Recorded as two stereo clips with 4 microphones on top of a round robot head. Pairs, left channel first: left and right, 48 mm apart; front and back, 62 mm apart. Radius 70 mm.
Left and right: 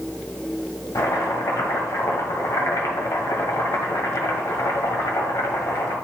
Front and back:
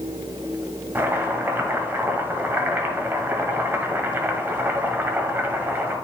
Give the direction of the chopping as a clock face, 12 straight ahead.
8 o'clock.